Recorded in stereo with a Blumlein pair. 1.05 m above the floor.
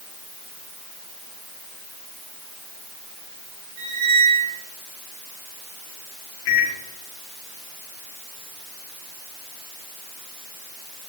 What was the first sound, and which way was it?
A squeak, 55° right.